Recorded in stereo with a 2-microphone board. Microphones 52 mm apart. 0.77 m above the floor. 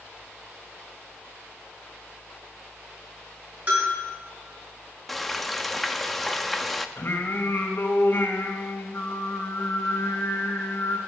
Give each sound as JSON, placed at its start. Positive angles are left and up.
{"t": 3.7, "sound": "a bell", "side_deg": -40, "distance_m": 8.0}
{"t": 5.1, "sound": "frying", "side_deg": 5, "distance_m": 0.6}
{"t": 7.0, "sound": "singing", "side_deg": 50, "distance_m": 1.5}